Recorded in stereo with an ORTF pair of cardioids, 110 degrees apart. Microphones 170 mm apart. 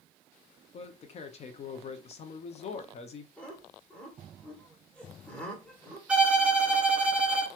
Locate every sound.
0.7 s a man speaking: 40° left, 0.6 m
3.4 s laughter: 5° left, 1.4 m
6.1 s a violin: 10° right, 0.7 m